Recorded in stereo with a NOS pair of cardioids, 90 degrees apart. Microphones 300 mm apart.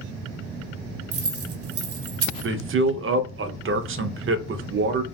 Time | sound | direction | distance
1.1 | keys jangling | 50° right | 0.9 m
2.4 | a man speaking | 45° right | 0.6 m